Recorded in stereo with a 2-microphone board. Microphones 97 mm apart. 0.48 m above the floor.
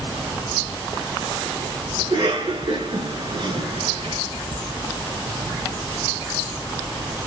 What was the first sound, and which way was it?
A cough, 55° right (ahead or behind).